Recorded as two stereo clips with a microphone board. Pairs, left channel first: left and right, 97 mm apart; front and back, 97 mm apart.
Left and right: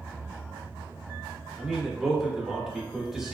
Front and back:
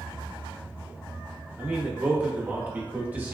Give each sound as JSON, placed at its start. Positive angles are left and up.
{"t": 1.6, "sound": "a man speaking", "azimuth_deg": -165, "distance_m": 0.7}